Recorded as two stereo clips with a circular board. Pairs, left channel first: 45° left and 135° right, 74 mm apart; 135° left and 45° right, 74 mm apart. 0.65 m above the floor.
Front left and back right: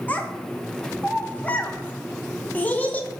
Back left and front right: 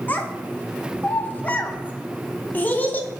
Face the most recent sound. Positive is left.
turn(degrees=90)